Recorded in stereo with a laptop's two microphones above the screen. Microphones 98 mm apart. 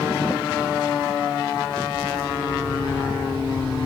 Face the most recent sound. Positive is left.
turn(degrees=-65)  # may be behind; listen again after turning